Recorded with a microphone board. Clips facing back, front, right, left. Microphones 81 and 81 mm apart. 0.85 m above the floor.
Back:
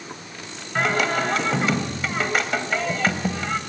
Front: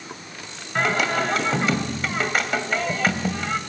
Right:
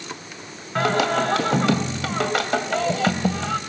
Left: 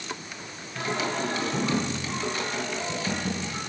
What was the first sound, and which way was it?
Singing, 90° right.